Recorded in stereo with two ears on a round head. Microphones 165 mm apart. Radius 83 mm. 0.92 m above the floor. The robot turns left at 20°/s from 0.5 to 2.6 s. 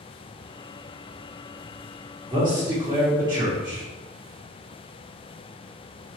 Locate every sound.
2.3 s a man speaking: 25° right (ahead or behind), 0.9 m